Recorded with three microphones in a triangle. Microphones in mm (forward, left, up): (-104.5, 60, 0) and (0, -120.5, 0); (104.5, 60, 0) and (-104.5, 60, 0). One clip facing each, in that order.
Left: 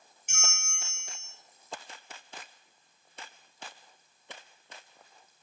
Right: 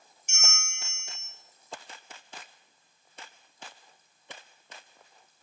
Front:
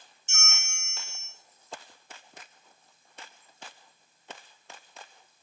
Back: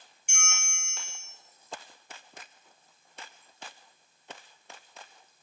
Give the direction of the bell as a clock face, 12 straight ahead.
8 o'clock.